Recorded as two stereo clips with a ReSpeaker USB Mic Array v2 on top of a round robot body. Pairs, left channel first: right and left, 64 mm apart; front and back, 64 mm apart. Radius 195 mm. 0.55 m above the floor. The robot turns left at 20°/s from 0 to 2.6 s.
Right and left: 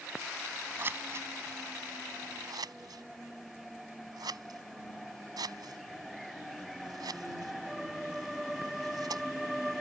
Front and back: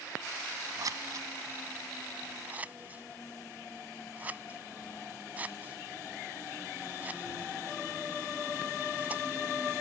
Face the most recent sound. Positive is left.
turn(degrees=115)